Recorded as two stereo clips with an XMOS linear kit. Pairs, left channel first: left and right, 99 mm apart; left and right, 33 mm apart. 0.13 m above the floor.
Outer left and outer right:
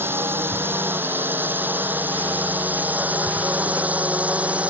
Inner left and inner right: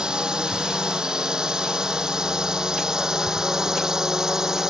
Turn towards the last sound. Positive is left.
turn(degrees=-10)  # may be behind; listen again after turning